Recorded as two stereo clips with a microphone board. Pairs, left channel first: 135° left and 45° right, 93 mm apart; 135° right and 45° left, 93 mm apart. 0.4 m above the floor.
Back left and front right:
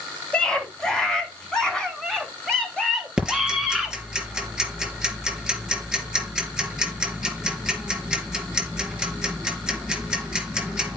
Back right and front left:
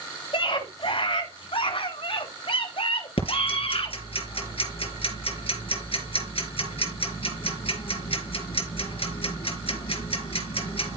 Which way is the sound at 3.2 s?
130° right.